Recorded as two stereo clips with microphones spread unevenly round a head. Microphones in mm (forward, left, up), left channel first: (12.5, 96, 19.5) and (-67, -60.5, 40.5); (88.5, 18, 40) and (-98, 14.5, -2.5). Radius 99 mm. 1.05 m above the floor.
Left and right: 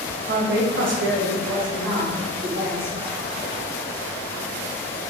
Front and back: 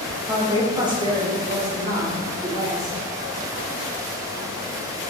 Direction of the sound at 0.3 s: 100° right.